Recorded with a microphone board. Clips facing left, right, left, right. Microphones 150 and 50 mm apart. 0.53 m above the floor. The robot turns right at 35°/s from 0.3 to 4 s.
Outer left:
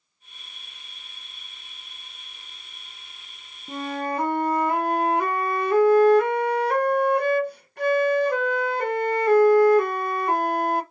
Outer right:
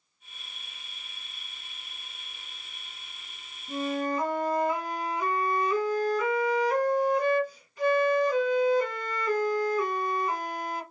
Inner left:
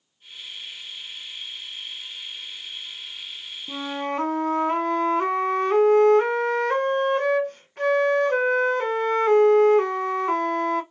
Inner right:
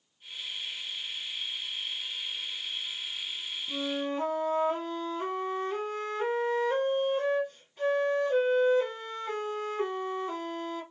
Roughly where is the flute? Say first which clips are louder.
Outer left 1 dB, inner left 4 dB; left.